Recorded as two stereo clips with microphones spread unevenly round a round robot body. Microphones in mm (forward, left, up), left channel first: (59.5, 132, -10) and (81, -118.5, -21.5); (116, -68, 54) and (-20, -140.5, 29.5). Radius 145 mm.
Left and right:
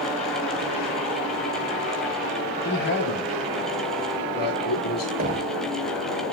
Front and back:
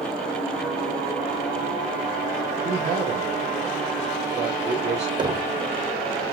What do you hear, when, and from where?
2.6 s a man speaking: 150° left, 6 m
5.2 s knocking: 125° right, 1.4 m